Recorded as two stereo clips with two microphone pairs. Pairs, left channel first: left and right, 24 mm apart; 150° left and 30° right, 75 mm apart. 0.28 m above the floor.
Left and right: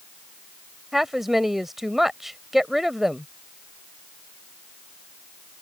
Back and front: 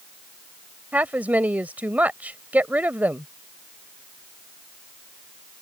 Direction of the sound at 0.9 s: 35° right.